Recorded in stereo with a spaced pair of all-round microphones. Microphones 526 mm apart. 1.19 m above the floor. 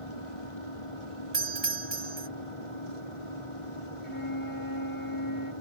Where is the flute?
40° left (ahead or behind).